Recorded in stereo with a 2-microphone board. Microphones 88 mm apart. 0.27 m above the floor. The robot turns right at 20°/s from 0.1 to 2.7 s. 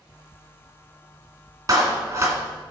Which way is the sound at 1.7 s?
40° right (ahead or behind).